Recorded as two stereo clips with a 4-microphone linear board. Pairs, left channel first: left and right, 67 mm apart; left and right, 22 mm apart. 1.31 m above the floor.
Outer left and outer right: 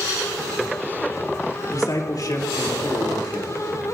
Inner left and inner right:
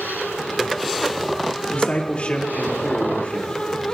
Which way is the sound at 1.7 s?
70° left (ahead or behind).